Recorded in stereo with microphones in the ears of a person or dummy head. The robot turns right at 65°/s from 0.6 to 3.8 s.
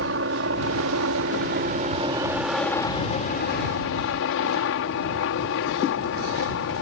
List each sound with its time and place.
0.0 s a helicopter: 120° right; by 6.8 s 90° left